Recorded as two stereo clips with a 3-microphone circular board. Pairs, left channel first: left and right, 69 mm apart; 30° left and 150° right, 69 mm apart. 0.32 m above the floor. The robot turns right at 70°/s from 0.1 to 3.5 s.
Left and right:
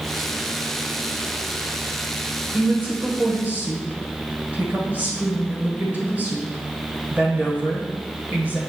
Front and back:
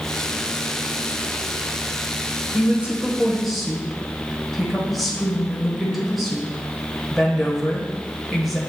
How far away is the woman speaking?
About 1.4 m.